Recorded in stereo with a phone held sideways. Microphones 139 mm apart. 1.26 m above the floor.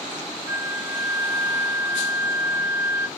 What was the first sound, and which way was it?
A flute, 20° right (ahead or behind).